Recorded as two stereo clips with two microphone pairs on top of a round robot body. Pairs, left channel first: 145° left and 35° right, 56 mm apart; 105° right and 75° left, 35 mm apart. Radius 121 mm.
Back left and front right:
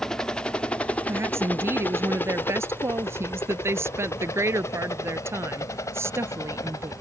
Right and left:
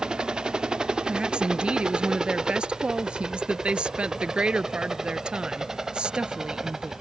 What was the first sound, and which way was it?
A helicopter, 90° left.